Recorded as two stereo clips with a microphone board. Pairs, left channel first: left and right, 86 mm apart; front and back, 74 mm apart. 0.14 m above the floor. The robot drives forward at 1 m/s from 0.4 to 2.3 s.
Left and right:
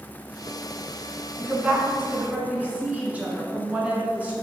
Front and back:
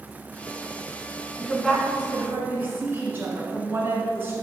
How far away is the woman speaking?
About 1.1 m.